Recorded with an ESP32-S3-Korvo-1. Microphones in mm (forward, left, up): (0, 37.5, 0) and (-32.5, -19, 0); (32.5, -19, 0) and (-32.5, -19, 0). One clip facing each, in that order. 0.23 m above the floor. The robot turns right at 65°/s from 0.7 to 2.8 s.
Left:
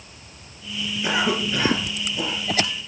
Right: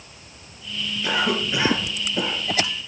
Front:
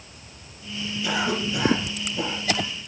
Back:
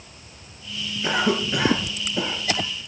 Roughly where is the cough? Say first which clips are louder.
Even, back 3 dB; behind left.